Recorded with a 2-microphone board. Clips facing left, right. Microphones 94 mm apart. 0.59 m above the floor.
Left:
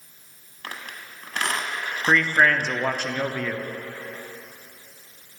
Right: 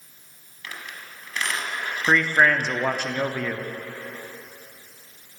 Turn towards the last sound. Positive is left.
turn(degrees=-10)  # may be behind; listen again after turning